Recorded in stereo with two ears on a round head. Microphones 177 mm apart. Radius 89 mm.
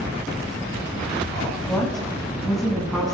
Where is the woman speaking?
5° left (ahead or behind), 7 m; by 3.1 s centre (ahead or behind), 8 m.